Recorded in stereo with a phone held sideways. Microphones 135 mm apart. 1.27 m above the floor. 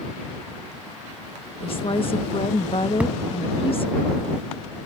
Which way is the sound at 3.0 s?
10° right (ahead or behind).